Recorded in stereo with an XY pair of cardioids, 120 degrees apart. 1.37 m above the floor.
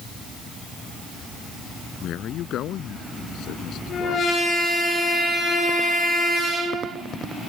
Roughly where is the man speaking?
Ahead left.